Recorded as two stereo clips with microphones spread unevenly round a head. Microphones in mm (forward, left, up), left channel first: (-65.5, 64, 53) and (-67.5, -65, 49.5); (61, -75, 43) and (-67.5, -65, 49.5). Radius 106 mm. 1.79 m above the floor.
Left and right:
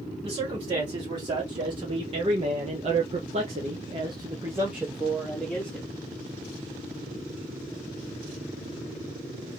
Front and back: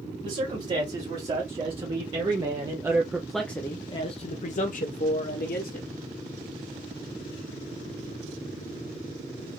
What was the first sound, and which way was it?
A man speaking, 145° right.